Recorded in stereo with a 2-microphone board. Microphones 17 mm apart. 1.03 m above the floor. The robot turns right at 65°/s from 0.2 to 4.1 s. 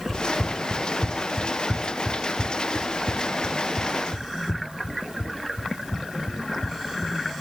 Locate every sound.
0.1 s running footsteps: 35° left (ahead or behind); by 7.2 s 75° left (ahead or behind)